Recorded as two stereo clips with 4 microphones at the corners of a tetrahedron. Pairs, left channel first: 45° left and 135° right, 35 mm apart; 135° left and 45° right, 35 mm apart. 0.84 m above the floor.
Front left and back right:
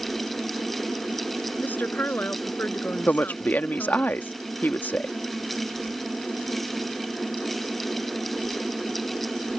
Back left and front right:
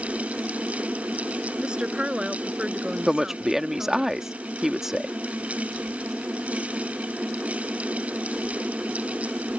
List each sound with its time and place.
1.6 s a woman speaking: 15° left
3.1 s a woman speaking: 30° left